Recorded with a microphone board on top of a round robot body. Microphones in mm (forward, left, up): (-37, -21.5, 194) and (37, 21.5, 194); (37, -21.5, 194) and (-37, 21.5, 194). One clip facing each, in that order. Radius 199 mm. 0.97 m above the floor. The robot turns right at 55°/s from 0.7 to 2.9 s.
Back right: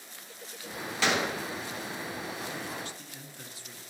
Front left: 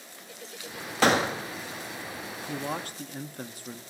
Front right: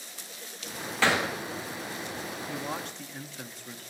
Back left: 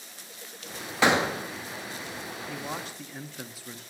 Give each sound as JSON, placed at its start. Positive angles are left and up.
{"t": 1.0, "sound": "a gunshot", "azimuth_deg": 75, "distance_m": 1.1}
{"t": 2.5, "sound": "a man speaking", "azimuth_deg": 40, "distance_m": 1.2}